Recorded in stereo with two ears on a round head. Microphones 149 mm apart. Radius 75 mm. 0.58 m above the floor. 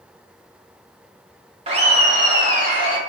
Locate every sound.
1.7 s laughter: 35° right (ahead or behind), 0.7 m; by 3.0 s 50° right (ahead or behind), 1.3 m